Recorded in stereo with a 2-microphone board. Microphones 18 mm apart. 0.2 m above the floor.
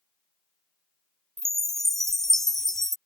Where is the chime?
20° left (ahead or behind).